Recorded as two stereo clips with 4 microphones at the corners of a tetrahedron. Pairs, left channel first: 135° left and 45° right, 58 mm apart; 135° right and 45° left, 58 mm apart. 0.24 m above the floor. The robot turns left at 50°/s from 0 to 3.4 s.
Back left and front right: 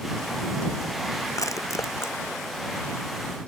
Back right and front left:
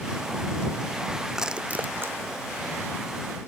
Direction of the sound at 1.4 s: 130° left.